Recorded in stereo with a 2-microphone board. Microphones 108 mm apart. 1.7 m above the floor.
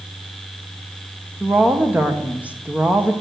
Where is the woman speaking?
15° right (ahead or behind), 1.6 m.